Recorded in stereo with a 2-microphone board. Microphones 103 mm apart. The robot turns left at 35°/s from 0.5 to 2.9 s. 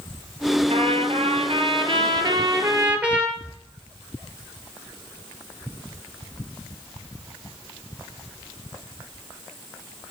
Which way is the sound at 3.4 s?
30° left (ahead or behind).